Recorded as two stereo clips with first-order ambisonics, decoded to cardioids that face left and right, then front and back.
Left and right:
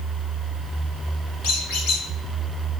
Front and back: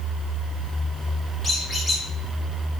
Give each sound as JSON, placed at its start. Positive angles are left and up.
{"t": 1.4, "sound": "a squeak", "azimuth_deg": 80, "distance_m": 3.5}